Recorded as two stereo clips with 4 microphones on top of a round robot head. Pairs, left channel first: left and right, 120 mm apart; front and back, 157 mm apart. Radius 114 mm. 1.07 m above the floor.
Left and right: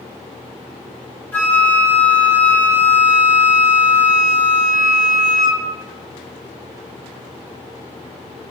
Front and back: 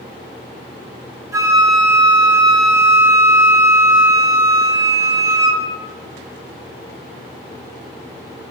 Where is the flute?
145° left, 0.7 m.